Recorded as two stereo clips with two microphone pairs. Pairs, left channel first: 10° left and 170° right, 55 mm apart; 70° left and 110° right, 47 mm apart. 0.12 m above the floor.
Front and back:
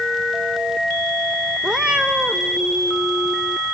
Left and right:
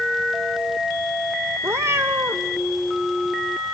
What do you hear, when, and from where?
1.6 s a cat meowing: 100° right, 1.2 m